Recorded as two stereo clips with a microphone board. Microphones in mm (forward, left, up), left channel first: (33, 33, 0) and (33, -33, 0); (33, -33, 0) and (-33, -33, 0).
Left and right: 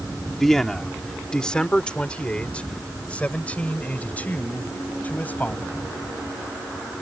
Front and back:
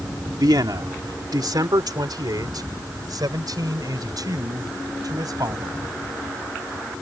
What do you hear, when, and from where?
0.4 s a man speaking: 175° left; by 5.8 s 155° left